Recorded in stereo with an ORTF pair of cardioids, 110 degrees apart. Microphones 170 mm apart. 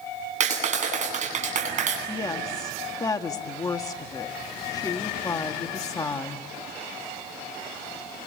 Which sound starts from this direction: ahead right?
A clap, at 0.4 s.